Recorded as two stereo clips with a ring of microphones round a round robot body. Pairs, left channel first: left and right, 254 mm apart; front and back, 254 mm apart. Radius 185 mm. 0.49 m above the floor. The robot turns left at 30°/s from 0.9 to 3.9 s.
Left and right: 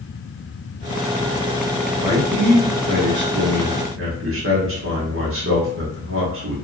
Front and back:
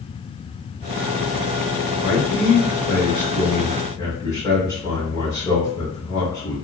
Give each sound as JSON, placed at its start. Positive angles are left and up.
{"t": 2.0, "sound": "a man speaking", "azimuth_deg": -20, "distance_m": 1.4}